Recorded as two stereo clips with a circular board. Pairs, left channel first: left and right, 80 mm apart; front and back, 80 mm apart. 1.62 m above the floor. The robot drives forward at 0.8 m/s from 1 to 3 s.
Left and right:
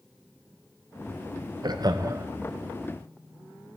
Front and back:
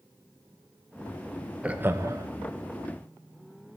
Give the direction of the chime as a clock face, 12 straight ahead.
I don't hear a chime.